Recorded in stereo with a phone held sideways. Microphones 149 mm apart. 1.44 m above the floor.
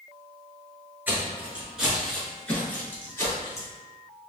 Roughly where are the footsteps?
Centre.